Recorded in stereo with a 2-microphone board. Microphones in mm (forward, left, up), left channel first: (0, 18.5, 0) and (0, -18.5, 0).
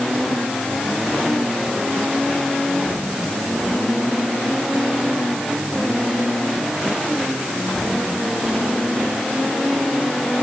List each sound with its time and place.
Only background noise.